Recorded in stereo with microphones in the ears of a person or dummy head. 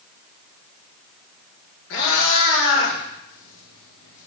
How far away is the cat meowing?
About 4.5 m.